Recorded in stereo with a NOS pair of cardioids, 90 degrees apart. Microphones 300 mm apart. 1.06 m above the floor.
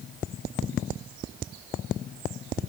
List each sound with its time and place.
Only background noise.